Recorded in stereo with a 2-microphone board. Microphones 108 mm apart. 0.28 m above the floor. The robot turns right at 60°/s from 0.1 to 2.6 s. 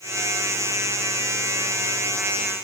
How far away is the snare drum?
I don't hear a snare drum.